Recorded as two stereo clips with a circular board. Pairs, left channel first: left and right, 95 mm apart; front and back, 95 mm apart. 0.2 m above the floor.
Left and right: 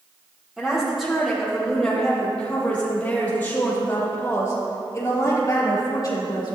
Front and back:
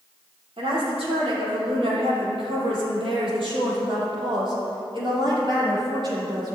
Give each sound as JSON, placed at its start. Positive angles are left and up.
{"t": 0.6, "sound": "a woman speaking", "azimuth_deg": -175, "distance_m": 5.5}